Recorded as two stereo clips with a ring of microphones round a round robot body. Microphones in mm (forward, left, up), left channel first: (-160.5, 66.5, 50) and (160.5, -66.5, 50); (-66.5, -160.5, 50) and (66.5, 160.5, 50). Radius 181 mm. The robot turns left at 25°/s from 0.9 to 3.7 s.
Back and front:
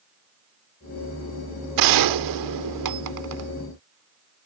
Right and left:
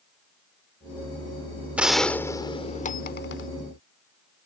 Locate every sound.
1.8 s a gunshot: 20° right; by 3.5 s 60° right